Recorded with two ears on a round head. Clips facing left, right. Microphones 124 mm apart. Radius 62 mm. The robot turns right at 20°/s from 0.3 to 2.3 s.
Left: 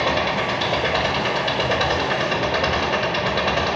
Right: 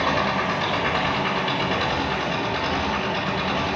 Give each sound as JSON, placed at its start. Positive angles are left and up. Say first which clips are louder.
{"t": 0.0, "sound": "an engine running", "louder": "left 1 dB", "azimuth_deg": 30, "distance_m": 5.5}